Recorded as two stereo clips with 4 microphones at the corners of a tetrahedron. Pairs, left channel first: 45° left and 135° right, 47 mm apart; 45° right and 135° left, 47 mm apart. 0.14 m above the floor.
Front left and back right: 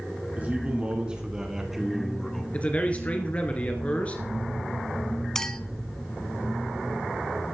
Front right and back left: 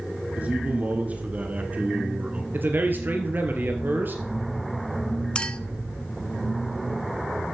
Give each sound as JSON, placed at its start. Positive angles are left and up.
{"t": 0.4, "sound": "a man speaking", "azimuth_deg": 180, "distance_m": 2.5}
{"t": 2.5, "sound": "a man speaking", "azimuth_deg": 100, "distance_m": 2.5}
{"t": 5.3, "sound": "a clink", "azimuth_deg": -15, "distance_m": 0.8}